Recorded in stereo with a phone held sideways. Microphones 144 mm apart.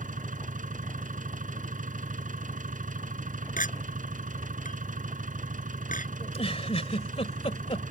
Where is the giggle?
45° left (ahead or behind).